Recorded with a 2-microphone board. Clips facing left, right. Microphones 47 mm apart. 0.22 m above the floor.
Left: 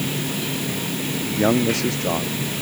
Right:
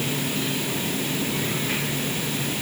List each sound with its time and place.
1.4 s a man speaking: 75° left (ahead or behind)